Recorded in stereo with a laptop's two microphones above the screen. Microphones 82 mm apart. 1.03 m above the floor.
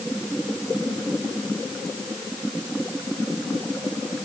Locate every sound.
Only background noise.